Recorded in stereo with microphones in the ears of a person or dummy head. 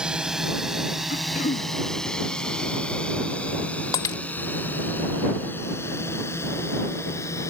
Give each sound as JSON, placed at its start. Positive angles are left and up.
{"t": 0.0, "sound": "a drone", "side_deg": -5}
{"t": 1.1, "sound": "throat clearing", "side_deg": 45}
{"t": 3.9, "sound": "breaking glass", "side_deg": 20}